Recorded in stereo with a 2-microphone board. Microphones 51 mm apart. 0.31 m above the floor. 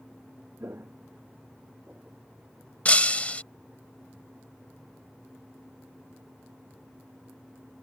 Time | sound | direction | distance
0.6 | footsteps | 60° right (ahead or behind) | ?
2.9 | breaking glass | 30° left (ahead or behind) | ?